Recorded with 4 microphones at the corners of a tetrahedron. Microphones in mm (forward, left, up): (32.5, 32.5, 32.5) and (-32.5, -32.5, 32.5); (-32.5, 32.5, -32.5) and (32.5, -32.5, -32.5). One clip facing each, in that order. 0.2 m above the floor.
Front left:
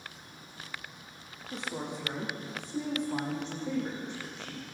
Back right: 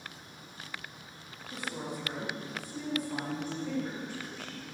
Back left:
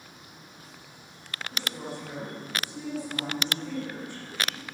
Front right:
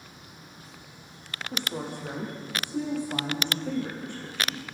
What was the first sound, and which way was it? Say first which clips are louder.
A woman speaking: front left 1 dB, front right 3 dB; 20° right.